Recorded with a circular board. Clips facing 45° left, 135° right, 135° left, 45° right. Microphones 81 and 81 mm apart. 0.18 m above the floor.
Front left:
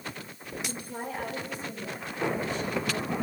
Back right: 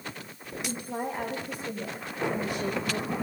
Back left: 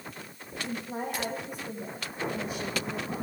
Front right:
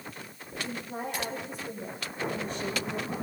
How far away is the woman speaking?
About 8.5 m.